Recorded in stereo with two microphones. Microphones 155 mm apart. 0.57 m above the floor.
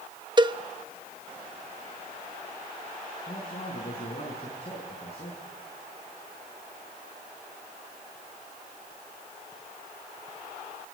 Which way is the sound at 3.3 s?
40° left (ahead or behind).